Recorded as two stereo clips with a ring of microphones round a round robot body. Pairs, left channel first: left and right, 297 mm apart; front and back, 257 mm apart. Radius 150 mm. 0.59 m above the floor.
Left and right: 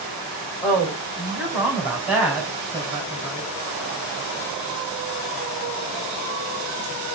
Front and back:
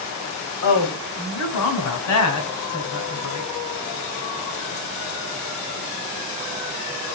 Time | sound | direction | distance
0.6 | a woman speaking | 5° right | 2 m